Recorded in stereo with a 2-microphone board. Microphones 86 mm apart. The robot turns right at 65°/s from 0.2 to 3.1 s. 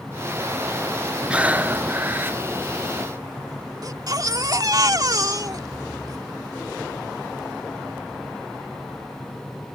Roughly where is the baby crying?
Right.